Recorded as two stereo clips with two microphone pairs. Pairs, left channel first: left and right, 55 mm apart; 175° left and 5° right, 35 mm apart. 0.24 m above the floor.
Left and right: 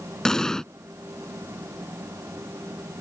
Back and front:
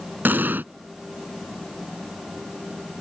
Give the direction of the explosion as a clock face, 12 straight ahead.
12 o'clock.